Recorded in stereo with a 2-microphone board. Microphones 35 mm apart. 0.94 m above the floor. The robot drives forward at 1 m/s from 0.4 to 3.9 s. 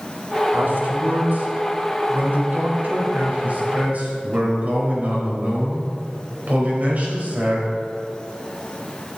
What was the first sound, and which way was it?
A man speaking, 80° right.